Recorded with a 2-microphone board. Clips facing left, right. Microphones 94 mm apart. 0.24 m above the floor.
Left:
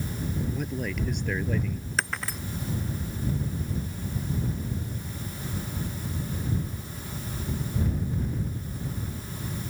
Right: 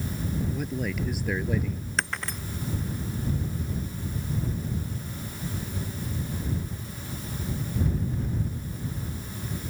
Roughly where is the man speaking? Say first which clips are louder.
Right 1 dB; centre.